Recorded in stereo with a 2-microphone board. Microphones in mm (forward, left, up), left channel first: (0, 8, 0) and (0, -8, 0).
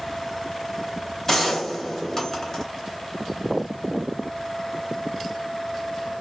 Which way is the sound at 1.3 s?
25° left (ahead or behind).